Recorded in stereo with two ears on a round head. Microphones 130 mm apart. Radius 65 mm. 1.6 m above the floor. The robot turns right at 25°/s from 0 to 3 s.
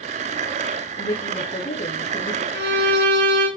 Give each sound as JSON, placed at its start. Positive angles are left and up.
{"t": 1.0, "sound": "a woman speaking", "azimuth_deg": 95, "distance_m": 3.5}
{"t": 2.5, "sound": "a violin", "side_deg": -80, "distance_m": 3.5}